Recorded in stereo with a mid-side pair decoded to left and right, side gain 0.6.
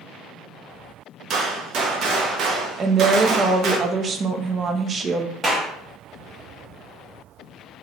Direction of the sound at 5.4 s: 25° right.